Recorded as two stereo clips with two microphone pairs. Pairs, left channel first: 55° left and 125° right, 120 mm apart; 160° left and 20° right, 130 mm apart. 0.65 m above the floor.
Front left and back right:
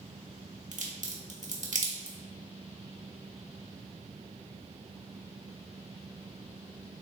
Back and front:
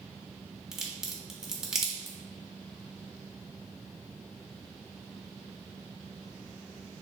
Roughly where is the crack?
Right.